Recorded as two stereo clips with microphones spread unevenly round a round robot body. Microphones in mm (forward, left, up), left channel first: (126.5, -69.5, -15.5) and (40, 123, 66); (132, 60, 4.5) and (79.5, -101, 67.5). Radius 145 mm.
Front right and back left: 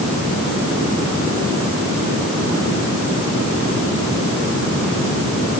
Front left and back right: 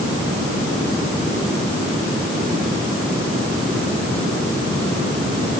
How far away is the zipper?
I don't hear a zipper.